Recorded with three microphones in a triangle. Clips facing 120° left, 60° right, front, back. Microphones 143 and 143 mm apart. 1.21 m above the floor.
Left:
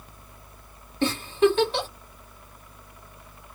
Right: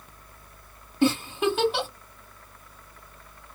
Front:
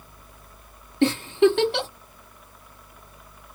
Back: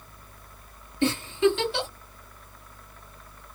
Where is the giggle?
25° left, 1.4 m.